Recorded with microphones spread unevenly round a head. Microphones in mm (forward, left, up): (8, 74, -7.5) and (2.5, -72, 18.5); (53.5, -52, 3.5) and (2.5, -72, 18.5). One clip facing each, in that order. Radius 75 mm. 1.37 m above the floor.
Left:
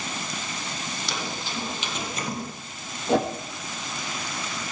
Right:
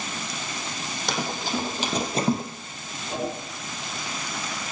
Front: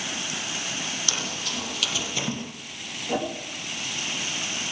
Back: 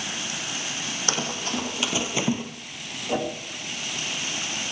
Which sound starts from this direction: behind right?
Running footsteps, at 1.1 s.